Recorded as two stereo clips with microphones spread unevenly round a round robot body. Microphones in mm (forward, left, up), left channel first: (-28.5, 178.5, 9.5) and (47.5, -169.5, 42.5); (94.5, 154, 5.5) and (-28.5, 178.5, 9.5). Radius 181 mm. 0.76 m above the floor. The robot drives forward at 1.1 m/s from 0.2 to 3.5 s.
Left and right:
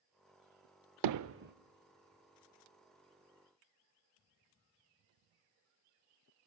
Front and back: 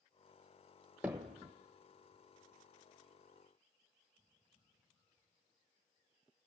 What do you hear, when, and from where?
1.0 s hammering: 110° right, 0.7 m; by 1.5 s 140° right, 1.0 m